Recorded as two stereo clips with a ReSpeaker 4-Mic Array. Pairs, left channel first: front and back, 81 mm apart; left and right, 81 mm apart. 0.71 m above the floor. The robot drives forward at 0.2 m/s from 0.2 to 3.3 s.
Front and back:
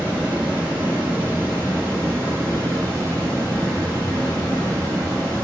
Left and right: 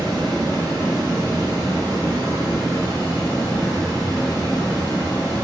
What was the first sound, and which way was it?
Running water, 110° right.